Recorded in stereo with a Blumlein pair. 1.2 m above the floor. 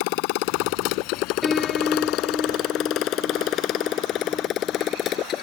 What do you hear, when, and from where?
0.0 s a motorcycle: 45° left; by 5.4 s 30° left
1.4 s a piano: 10° left